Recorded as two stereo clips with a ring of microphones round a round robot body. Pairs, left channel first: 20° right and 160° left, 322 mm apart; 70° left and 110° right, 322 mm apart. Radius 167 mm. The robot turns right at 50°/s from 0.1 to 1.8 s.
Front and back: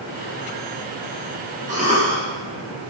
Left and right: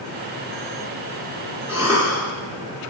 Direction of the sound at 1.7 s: 175° left.